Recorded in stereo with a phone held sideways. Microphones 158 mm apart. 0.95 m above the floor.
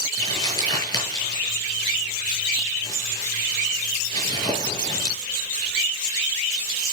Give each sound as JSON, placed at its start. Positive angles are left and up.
{"t": 0.2, "sound": "crumpling", "side_deg": 25, "distance_m": 7.5}